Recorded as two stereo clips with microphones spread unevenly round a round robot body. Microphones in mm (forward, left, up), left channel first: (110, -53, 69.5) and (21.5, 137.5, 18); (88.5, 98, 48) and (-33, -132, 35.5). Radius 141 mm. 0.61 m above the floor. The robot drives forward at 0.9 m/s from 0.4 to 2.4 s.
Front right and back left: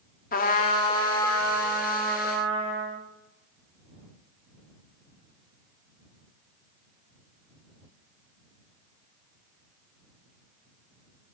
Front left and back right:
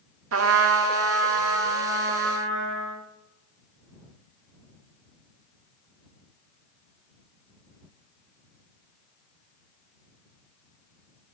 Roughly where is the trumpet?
Behind right.